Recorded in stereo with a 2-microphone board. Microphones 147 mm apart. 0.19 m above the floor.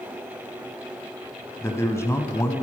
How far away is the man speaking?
About 1.0 m.